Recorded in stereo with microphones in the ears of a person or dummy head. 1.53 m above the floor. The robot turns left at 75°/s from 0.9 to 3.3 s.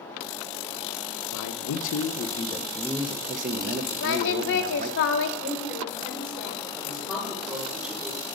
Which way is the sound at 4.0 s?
65° left (ahead or behind).